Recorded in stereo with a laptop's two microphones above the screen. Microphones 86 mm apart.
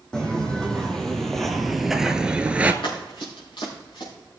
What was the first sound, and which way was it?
Footsteps, 10° left (ahead or behind).